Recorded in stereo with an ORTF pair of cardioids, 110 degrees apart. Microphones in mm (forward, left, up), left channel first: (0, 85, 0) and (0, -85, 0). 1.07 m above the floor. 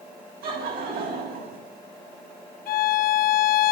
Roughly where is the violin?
Ahead left.